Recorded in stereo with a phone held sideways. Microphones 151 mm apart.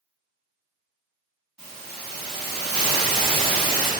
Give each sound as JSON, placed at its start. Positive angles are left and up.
{"t": 1.6, "sound": "a hiss", "side_deg": -5, "distance_m": 1.9}